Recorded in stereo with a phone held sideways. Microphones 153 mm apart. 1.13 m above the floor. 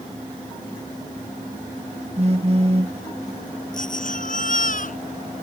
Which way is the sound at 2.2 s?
40° right (ahead or behind).